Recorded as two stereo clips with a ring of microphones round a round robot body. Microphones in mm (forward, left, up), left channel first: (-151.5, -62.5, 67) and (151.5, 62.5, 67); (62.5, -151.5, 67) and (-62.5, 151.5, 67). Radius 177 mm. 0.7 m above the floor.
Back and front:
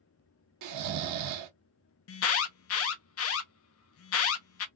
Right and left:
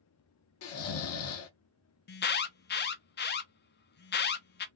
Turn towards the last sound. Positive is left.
turn(degrees=-120)